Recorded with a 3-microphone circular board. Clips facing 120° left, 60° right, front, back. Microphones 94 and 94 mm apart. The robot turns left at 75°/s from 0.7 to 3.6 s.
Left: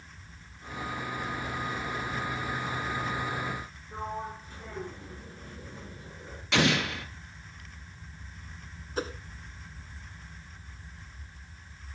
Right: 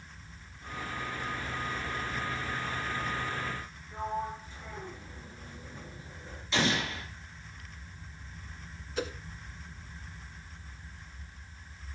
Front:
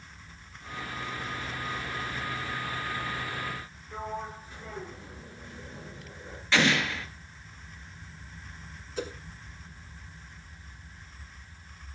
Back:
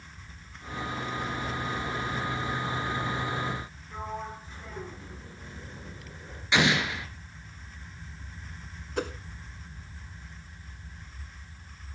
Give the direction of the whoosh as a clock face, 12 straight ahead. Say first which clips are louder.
Left 1 dB, back 3 dB; 6 o'clock.